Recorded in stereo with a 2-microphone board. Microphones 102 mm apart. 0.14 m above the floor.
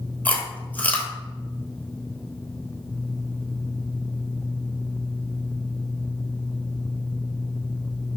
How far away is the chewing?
About 1.1 m.